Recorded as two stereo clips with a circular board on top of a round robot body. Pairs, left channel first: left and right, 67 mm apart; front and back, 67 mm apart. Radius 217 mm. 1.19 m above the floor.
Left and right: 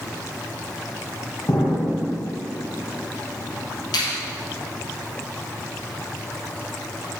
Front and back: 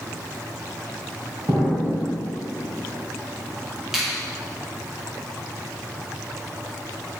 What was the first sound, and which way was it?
An explosion, 140° left.